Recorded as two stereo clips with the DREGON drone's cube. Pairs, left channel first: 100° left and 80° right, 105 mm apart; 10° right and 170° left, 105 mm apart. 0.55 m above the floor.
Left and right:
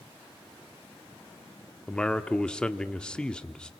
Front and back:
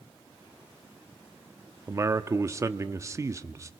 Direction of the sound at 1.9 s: 170° left.